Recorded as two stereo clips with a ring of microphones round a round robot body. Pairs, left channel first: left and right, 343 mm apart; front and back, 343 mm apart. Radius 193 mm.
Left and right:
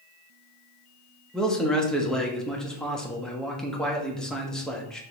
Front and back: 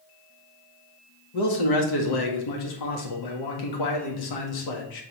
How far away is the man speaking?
About 1.7 m.